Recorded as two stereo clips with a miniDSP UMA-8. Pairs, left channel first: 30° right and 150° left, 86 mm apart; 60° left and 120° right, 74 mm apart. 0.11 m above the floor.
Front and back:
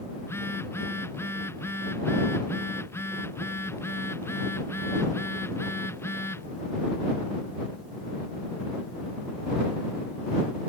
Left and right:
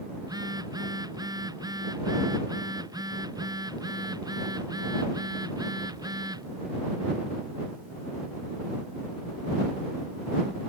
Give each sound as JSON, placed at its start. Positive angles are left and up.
{"t": 0.2, "sound": "a phone buzzing", "azimuth_deg": -90}